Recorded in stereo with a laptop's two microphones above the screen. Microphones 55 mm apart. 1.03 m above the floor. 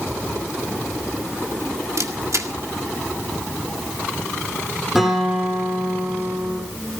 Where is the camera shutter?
70° right (ahead or behind), 1.8 m.